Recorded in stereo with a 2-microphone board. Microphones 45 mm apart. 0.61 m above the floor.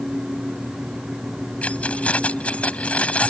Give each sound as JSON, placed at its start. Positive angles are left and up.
{"t": 1.6, "sound": "keys jangling", "side_deg": 30}